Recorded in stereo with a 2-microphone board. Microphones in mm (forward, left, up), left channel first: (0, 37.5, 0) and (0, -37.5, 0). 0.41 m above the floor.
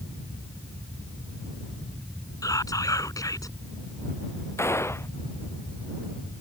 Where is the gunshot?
35° left (ahead or behind).